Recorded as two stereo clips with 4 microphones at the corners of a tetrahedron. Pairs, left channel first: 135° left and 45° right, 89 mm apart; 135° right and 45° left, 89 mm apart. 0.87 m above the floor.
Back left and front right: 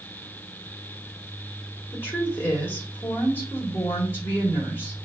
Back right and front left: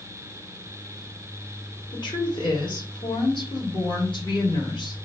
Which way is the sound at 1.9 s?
160° right.